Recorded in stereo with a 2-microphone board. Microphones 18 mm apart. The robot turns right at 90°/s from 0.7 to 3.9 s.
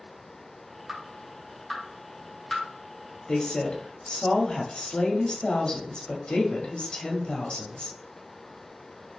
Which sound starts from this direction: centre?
Dripping, at 0.9 s.